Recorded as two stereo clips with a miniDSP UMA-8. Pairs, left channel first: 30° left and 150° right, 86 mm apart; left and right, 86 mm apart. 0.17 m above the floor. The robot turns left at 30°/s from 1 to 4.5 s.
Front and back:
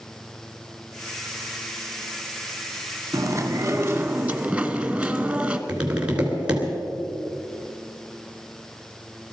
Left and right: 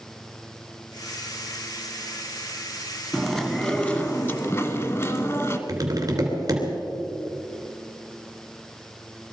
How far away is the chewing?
About 1.2 m.